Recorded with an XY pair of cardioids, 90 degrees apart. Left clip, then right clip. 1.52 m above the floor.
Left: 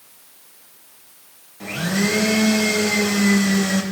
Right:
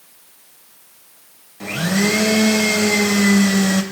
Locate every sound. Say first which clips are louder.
1.6 s a blender: right 3 dB; 30° right, 1.5 m